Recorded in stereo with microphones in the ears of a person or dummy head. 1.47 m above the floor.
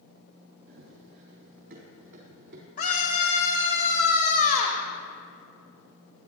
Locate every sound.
0.7 s running footsteps: 55° right (ahead or behind), 3 m; by 2.7 s 50° right (ahead or behind), 4 m
2.8 s a scream: 45° left (ahead or behind), 2.5 m